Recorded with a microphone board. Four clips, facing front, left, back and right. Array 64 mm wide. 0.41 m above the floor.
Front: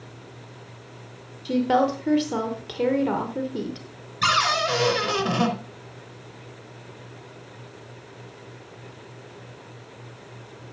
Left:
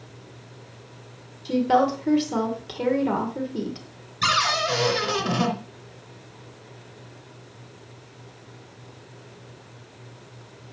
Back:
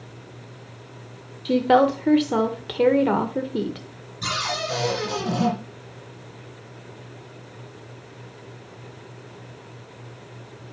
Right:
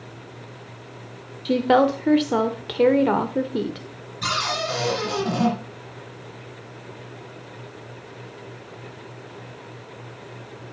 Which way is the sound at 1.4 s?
125° right.